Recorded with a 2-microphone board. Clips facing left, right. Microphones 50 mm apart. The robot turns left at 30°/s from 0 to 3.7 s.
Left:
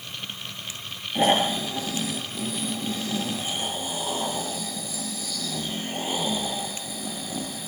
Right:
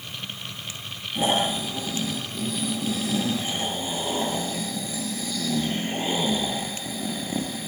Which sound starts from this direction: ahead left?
Snoring, at 1.1 s.